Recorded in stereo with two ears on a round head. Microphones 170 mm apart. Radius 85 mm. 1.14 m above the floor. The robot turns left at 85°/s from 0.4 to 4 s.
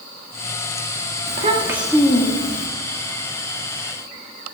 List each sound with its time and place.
1.3 s a child speaking: 130° right, 1.5 m; by 2.7 s 110° left, 1.5 m